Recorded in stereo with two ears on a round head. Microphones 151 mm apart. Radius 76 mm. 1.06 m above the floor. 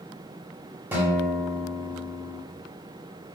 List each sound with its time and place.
0.9 s a guitar: 10° right (ahead or behind), 0.7 m